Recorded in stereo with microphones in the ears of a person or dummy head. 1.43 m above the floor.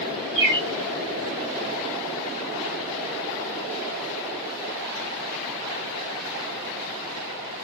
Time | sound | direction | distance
0.3 | a bird | 55° right (ahead or behind) | 2 m